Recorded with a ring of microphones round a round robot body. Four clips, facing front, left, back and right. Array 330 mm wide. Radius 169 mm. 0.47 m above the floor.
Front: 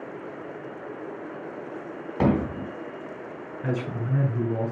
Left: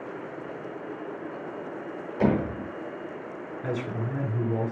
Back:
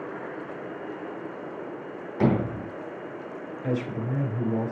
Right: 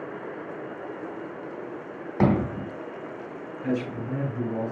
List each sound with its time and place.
2.2 s hammering: 55° right, 4 m
3.6 s a man speaking: 15° left, 5.5 m